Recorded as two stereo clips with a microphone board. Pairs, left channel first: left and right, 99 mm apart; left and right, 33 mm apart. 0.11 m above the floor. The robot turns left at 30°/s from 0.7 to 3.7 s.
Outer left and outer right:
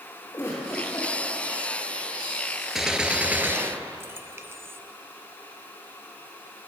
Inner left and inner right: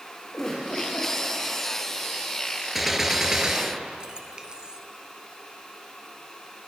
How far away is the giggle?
About 4.5 m.